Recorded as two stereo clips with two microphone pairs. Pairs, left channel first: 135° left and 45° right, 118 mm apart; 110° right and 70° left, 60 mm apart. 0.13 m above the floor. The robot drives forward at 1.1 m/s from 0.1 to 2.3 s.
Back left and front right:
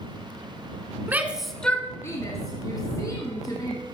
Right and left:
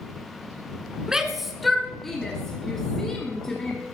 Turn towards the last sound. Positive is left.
turn(degrees=175)